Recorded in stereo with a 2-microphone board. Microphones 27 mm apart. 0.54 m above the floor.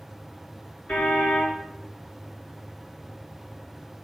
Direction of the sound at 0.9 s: 45° left (ahead or behind).